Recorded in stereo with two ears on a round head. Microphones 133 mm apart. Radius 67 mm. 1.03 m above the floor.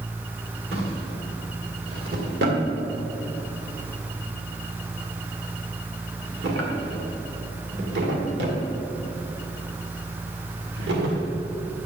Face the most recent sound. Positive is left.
turn(degrees=-80)